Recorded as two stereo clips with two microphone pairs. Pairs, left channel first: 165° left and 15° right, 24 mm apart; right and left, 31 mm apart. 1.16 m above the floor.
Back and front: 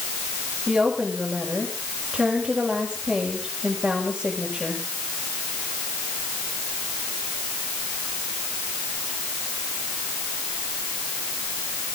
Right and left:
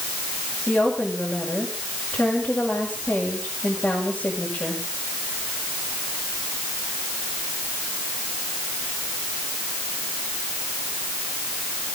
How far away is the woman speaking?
About 7 m.